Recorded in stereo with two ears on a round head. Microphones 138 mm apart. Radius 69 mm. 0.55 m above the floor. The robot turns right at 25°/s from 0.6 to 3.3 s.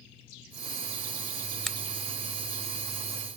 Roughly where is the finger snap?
Centre.